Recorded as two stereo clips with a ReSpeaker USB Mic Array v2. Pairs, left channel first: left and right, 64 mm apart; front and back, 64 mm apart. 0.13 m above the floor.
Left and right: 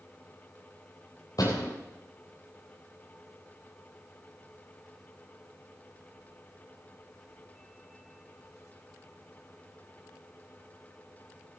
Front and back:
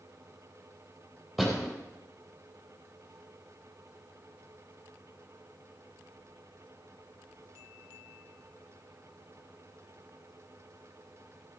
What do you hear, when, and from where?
1.4 s a door slam: 90° left, 3.5 m